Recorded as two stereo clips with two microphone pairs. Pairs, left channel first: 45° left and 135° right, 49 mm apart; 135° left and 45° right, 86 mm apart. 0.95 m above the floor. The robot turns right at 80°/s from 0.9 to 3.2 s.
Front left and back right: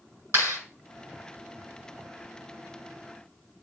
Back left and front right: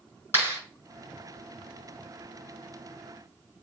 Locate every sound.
0.3 s a clap: 165° right, 6.5 m